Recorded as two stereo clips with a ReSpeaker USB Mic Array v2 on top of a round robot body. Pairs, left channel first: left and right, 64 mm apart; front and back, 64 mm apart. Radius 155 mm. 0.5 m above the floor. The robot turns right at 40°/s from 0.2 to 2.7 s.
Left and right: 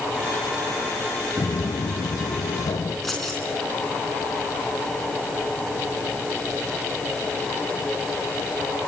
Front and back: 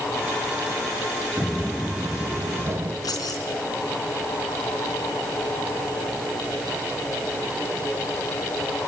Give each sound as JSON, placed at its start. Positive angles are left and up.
{"t": 1.4, "sound": "footsteps", "azimuth_deg": 100, "distance_m": 0.6}
{"t": 3.0, "sound": "keys jangling", "azimuth_deg": 5, "distance_m": 4.5}